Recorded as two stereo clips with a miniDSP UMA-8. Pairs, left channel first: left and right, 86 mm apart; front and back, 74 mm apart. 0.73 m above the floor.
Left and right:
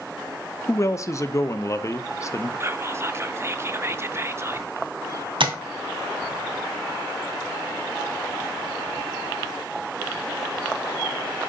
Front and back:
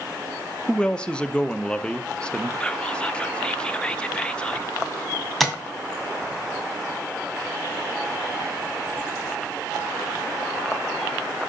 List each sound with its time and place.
0.7 s a man speaking: 70° left, 0.6 m
2.6 s whispering: 65° right, 0.6 m
5.4 s tapping: 90° right, 1.9 m